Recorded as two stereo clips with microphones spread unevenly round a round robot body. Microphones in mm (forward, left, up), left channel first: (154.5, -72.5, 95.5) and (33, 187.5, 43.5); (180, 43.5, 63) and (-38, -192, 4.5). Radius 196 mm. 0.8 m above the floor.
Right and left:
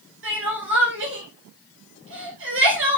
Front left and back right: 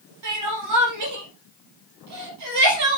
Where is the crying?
175° left, 3.5 m.